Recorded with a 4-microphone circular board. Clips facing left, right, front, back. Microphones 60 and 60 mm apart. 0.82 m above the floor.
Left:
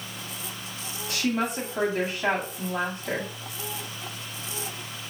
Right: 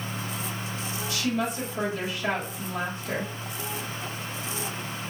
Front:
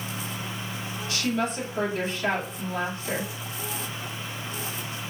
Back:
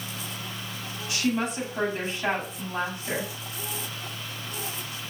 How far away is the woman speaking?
About 2.5 m.